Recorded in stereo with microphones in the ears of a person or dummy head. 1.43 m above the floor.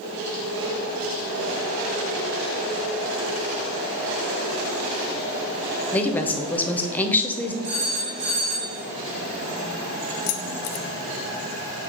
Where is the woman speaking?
10° left (ahead or behind), 0.7 m.